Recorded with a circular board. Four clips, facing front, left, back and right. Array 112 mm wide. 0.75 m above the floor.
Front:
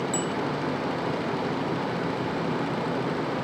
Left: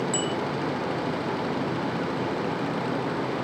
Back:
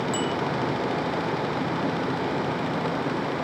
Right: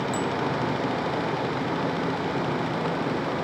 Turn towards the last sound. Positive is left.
turn(degrees=125)